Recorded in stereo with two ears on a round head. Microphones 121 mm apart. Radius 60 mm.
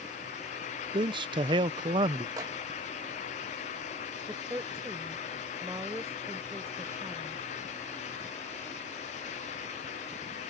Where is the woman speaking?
20° right (ahead or behind).